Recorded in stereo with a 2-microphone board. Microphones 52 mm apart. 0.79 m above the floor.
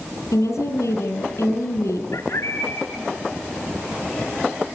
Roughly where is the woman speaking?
Left.